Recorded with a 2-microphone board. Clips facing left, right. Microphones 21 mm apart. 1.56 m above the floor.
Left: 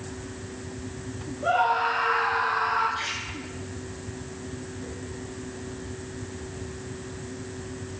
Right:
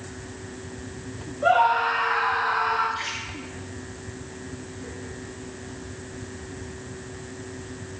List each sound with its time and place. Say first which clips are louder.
1.4 s a scream: right 4 dB; 60° right (ahead or behind), 3.5 m; by 2.9 s 65° right (ahead or behind), 5 m
3.0 s a splash: even; 10° right (ahead or behind), 4 m